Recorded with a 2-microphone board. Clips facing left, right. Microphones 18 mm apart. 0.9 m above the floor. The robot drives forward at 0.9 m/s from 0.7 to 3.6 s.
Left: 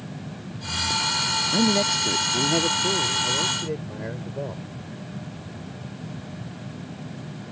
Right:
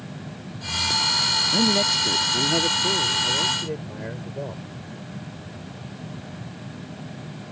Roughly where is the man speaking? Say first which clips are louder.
Right 1 dB; centre.